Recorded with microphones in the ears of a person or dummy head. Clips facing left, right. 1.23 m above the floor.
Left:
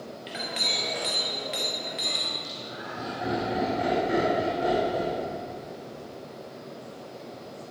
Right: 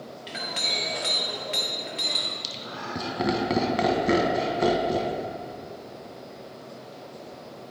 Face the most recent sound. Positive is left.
turn(degrees=-75)  # may be behind; listen again after turning